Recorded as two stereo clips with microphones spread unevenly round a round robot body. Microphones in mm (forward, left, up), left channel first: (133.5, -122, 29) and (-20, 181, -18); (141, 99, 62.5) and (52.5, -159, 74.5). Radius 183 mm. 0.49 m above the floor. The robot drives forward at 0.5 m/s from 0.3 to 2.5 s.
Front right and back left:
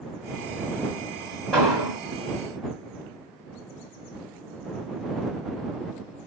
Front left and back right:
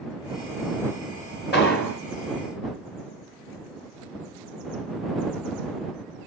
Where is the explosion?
30° left, 2 m; by 2.0 s 35° left, 2.0 m.